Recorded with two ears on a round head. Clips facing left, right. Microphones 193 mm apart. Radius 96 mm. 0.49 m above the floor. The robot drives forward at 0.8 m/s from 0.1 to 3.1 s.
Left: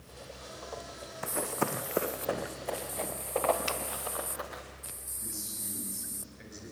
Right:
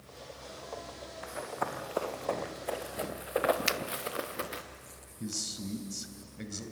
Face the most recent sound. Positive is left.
turn(degrees=-55)  # may be behind; listen again after turning